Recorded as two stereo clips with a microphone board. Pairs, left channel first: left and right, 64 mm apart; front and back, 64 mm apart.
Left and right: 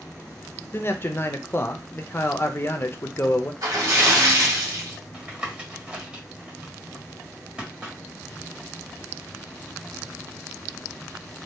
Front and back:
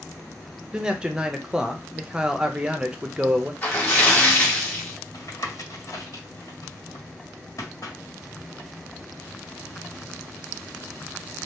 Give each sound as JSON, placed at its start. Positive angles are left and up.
{"t": 0.7, "sound": "a man speaking", "azimuth_deg": 110, "distance_m": 0.6}
{"t": 3.6, "sound": "a splash", "azimuth_deg": -65, "distance_m": 1.4}
{"t": 5.1, "sound": "tapping", "azimuth_deg": -20, "distance_m": 1.6}